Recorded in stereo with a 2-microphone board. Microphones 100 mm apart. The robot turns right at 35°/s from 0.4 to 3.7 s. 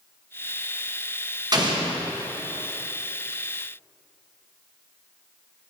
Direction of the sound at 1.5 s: 40° right (ahead or behind).